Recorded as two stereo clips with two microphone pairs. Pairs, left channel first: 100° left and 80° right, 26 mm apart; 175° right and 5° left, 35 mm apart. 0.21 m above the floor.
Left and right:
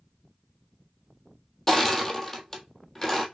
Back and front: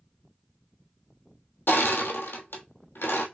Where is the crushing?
Straight behind, 1.1 m.